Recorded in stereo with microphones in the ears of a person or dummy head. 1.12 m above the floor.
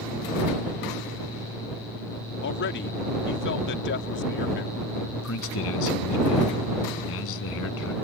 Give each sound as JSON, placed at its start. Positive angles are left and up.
{"t": 2.4, "sound": "a man speaking", "side_deg": 55}
{"t": 5.1, "sound": "a man speaking", "side_deg": 70}